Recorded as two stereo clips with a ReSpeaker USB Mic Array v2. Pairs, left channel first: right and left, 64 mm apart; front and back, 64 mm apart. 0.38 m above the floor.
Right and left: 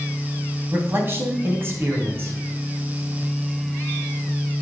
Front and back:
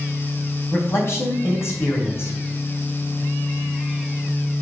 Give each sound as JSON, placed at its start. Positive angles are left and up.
{"t": 0.7, "sound": "a man speaking", "azimuth_deg": 40, "distance_m": 3.0}